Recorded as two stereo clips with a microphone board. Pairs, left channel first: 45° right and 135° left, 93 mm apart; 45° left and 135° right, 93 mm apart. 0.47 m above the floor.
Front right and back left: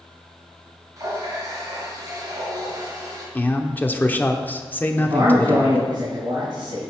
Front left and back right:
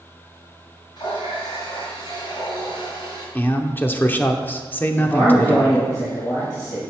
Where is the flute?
I don't hear a flute.